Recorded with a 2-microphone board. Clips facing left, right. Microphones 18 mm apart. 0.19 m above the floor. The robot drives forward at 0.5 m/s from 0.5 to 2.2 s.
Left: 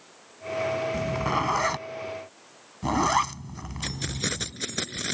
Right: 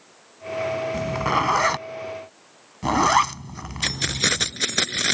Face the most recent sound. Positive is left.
turn(degrees=-40)  # may be behind; listen again after turning